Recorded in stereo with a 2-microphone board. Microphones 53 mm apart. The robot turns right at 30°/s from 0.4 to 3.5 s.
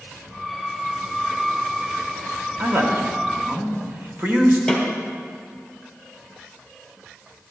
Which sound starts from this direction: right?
A man speaking, at 2.6 s.